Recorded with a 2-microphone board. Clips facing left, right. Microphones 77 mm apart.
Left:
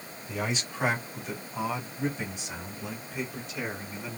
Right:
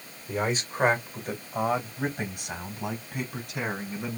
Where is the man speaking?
40° right (ahead or behind), 1.9 m; by 4.2 s 65° right (ahead or behind), 4 m.